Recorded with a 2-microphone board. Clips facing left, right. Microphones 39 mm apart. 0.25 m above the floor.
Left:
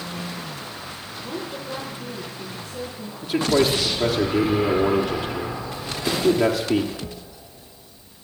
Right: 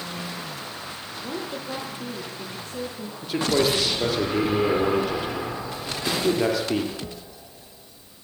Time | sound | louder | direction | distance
1.2 | a woman speaking | even | 45° right (ahead or behind) | 5.5 m
3.2 | a man speaking | left 3 dB | 5° left (ahead or behind) | 5 m